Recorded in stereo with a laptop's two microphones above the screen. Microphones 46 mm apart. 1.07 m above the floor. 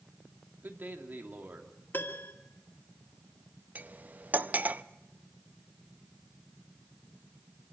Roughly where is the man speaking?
Right.